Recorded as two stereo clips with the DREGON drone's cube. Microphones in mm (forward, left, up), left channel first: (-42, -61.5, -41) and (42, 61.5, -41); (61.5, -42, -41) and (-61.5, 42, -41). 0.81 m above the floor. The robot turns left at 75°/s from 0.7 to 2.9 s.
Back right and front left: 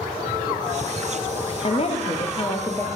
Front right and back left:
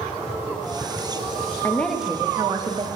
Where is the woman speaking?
100° right, 0.5 m; by 2.9 s 165° left, 0.5 m.